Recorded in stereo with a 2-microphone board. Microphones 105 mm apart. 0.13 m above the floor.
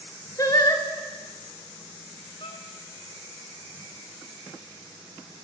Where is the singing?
35° left (ahead or behind), 1.4 m.